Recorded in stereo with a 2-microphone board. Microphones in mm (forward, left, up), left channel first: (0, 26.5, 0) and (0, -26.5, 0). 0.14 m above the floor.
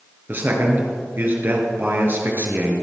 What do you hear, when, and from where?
0.3 s a man speaking: 45° right (ahead or behind), 2.5 m